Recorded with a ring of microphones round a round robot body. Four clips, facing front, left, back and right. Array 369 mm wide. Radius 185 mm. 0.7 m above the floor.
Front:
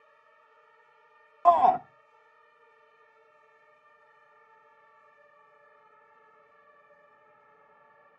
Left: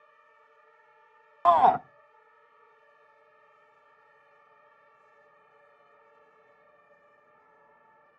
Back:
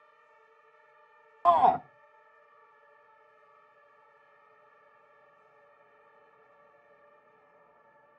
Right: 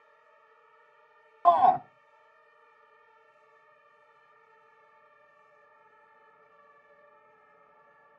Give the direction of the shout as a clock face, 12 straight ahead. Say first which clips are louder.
Left 1 dB, front 2 dB; 9 o'clock.